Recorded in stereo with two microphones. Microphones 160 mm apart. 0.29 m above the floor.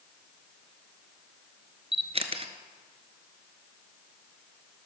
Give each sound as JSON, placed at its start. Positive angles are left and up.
{"t": 1.9, "sound": "a camera shutter", "side_deg": -40, "distance_m": 1.1}